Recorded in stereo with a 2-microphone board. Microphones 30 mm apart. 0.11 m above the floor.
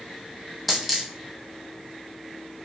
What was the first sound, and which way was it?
A dropped coin, centre (ahead or behind).